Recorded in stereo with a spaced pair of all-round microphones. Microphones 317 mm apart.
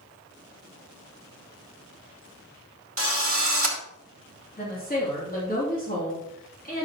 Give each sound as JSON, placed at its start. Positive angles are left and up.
{"t": 3.0, "sound": "a drill", "side_deg": -45, "distance_m": 2.5}
{"t": 4.6, "sound": "a woman speaking", "side_deg": 25, "distance_m": 3.0}